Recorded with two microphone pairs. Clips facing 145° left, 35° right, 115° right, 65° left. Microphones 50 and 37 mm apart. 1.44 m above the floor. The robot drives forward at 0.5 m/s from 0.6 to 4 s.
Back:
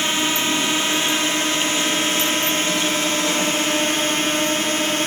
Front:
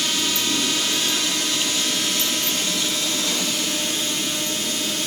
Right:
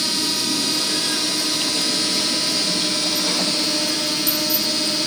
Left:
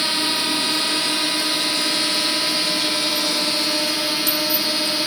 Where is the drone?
110° left; by 5.1 s 135° left.